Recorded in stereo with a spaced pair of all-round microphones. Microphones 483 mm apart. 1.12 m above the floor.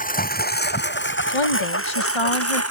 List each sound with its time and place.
0.0 s a lawn mower: 15° left (ahead or behind); by 2.7 s 30° left (ahead or behind)
1.3 s a woman speaking: 70° left (ahead or behind)